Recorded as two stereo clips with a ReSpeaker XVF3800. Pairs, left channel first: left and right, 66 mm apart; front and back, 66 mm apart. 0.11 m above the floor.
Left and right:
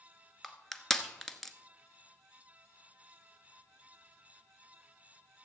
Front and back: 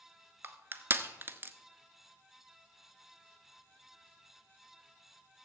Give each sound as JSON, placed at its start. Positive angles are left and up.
{"t": 0.4, "sound": "crushing", "azimuth_deg": 170, "distance_m": 0.9}